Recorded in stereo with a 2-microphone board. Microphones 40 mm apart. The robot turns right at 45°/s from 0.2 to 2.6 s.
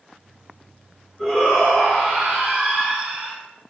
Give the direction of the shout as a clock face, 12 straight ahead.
7 o'clock.